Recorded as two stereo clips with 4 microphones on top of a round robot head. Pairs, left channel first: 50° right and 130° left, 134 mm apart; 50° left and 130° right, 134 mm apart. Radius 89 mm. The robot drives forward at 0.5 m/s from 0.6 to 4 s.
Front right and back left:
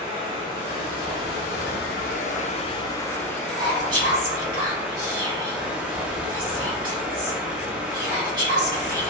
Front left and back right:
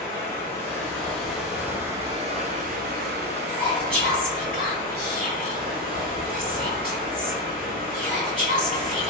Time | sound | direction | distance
0.0 | running water | 30° right | 1.1 m
3.5 | whispering | 175° right | 1.7 m